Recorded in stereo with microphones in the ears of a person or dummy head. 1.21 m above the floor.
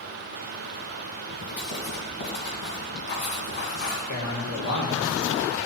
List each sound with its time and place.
1.5 s writing: 60° left (ahead or behind), 2.0 m
4.1 s a man speaking: 80° left, 1.9 m